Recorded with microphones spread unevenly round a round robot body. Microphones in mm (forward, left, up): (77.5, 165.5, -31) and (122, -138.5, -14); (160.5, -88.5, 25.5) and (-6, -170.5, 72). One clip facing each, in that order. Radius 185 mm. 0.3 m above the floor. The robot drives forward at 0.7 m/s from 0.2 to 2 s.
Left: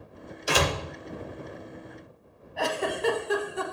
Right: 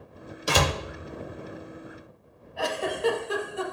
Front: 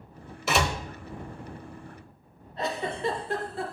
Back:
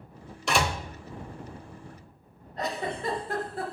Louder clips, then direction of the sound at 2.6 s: Even, front 1 dB; 145° left.